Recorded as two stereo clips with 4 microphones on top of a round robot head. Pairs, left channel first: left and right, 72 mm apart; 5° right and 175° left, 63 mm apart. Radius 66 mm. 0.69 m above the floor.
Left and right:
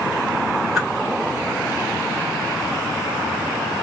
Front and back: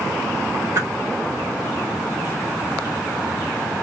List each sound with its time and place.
0.8 s a whoosh: 175° right, 1.8 m